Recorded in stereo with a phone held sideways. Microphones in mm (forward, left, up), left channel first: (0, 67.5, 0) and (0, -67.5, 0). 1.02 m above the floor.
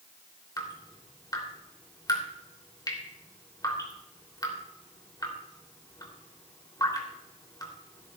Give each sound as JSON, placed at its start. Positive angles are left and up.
{"t": 0.6, "sound": "dripping", "side_deg": 30, "distance_m": 2.5}